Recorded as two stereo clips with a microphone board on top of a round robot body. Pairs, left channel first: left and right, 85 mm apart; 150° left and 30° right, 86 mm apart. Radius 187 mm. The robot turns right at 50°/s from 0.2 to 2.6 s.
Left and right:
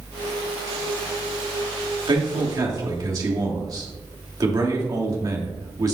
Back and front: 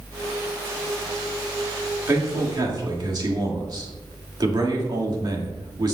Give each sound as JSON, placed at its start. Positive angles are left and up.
{"t": 2.1, "sound": "a man speaking", "azimuth_deg": -80, "distance_m": 2.5}